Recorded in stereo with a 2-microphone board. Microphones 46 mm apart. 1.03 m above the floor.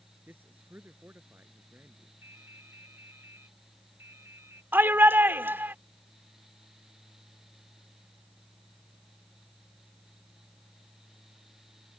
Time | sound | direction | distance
0.3 | a man speaking | 50° right (ahead or behind) | ?
2.2 | dripping | 75° right (ahead or behind) | ?
4.7 | a shout | 50° right (ahead or behind) | ?